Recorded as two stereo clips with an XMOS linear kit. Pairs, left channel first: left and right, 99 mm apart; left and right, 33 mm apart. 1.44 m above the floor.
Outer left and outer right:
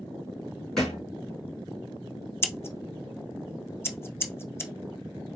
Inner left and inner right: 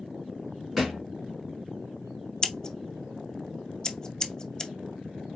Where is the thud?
5° left (ahead or behind), 3 m.